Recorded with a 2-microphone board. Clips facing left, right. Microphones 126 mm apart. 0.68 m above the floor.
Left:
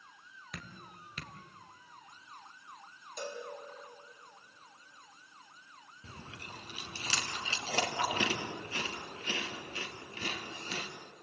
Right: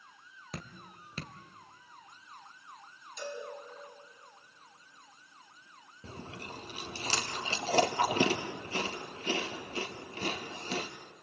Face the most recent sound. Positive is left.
turn(degrees=-35)  # may be behind; listen again after turning